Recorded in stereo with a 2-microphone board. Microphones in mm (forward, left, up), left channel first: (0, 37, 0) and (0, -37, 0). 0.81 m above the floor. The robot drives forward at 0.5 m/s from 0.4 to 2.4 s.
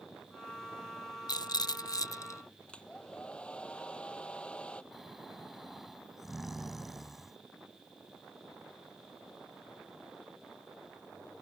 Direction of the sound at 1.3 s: 65° left (ahead or behind).